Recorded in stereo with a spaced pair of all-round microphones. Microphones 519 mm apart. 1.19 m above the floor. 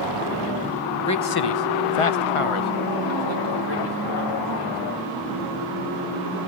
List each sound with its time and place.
1.1 s a man speaking: 30° left (ahead or behind), 0.8 m; by 4.8 s 45° left (ahead or behind), 2.5 m